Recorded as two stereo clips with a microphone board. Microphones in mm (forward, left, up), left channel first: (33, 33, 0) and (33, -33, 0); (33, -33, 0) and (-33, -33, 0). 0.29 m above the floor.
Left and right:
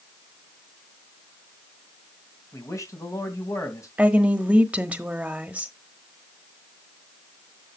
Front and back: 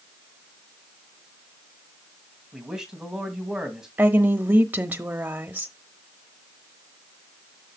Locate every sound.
2.5 s a man speaking: 100° left, 2.5 m
4.0 s a woman speaking: 145° right, 1.0 m